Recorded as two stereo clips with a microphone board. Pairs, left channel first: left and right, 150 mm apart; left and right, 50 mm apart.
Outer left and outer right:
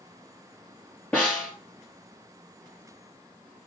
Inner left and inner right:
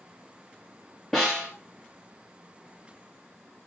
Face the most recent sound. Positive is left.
turn(degrees=10)  # may be behind; listen again after turning